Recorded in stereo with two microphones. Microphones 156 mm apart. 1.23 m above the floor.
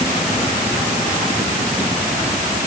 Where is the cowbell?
No cowbell in this recording.